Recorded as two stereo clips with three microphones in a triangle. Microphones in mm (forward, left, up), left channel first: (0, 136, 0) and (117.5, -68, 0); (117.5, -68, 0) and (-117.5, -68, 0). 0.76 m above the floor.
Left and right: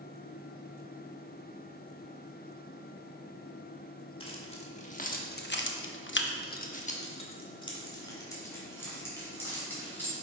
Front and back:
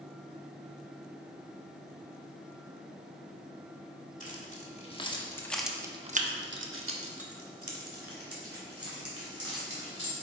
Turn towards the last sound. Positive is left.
turn(degrees=-160)